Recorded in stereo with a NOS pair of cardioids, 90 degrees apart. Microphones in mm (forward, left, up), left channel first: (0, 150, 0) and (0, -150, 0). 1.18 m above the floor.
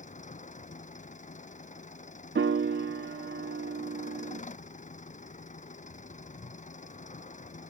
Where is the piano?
40° right.